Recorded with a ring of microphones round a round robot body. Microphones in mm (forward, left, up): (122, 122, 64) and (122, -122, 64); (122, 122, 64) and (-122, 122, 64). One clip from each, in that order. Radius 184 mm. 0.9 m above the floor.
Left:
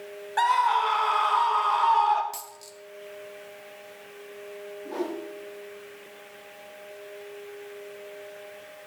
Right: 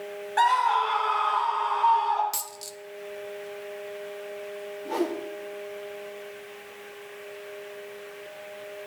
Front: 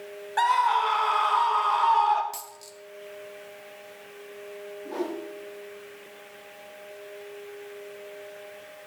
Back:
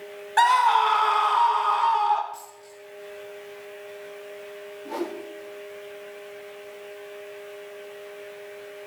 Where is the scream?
Straight behind, 1.0 m; by 2.2 s 90° left, 1.6 m.